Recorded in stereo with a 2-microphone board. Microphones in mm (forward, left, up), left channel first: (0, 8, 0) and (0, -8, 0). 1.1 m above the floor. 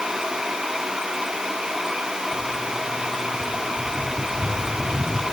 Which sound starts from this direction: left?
Footsteps, at 2.3 s.